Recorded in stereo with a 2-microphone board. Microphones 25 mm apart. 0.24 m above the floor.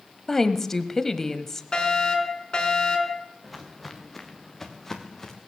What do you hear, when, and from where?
0.3 s a woman speaking: 15° left (ahead or behind), 1.0 m
1.7 s a fire alarm: 30° left (ahead or behind), 4.5 m
3.4 s footsteps: centre (ahead or behind), 2.5 m; by 5.4 s 15° left (ahead or behind), 3.5 m